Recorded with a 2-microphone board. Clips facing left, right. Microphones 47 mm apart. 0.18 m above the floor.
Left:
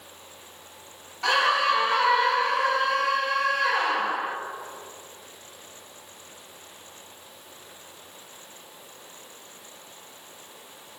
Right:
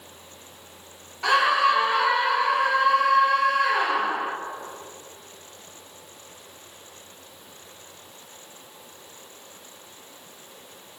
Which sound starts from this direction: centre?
A scream, at 1.2 s.